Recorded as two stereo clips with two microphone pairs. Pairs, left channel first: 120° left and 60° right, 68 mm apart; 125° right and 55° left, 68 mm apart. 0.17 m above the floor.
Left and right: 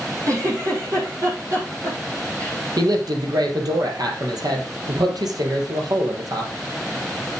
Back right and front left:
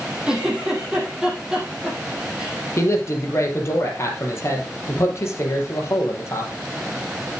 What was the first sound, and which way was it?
A giggle, 25° right.